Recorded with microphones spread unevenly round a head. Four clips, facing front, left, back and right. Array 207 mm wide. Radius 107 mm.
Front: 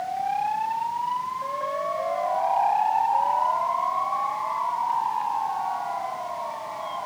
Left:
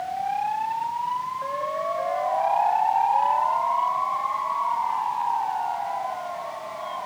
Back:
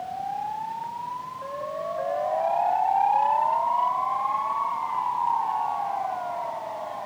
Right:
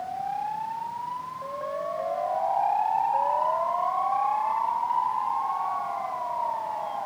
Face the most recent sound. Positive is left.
No sound to turn to.